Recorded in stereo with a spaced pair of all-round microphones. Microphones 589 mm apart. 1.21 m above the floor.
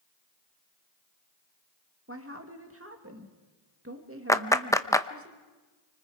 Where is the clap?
5° left (ahead or behind), 0.8 m.